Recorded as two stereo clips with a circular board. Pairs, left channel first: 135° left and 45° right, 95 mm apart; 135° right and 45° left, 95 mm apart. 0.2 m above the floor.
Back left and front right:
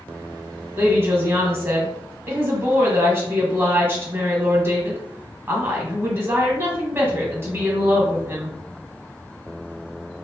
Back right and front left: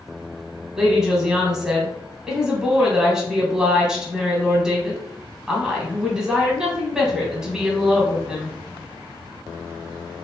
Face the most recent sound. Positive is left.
turn(degrees=-30)